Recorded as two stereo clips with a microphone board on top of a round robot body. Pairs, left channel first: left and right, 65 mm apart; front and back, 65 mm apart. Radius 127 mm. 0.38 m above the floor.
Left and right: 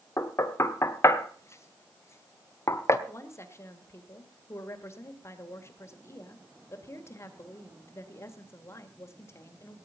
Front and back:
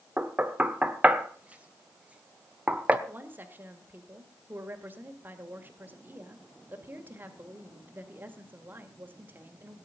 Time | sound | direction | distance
0.2 | knocking | 115° left | 1.5 m
3.1 | a woman speaking | 125° left | 2 m